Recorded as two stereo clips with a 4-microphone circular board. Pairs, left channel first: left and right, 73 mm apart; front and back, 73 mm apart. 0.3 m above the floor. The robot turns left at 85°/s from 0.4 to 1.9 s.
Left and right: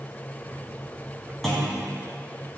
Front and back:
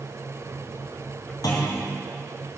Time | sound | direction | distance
1.4 | a clunk | 5° left | 3 m